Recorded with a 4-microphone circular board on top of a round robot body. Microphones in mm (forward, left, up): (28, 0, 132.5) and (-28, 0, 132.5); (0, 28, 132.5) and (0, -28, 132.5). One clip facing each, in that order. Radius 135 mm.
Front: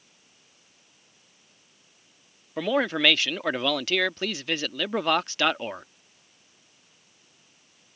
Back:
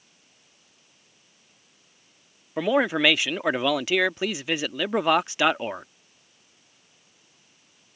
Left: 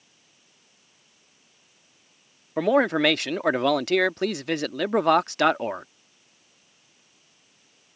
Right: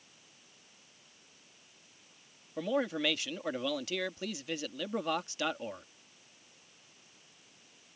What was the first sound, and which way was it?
A man speaking, 105° left.